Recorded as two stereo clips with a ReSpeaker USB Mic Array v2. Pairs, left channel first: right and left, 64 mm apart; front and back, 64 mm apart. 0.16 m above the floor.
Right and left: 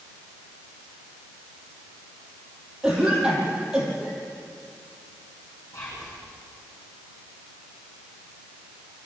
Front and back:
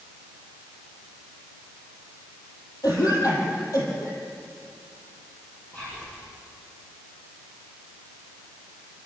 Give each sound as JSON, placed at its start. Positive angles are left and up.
{"t": 2.8, "sound": "a cough", "azimuth_deg": 10, "distance_m": 5.5}
{"t": 5.7, "sound": "whispering", "azimuth_deg": -60, "distance_m": 6.5}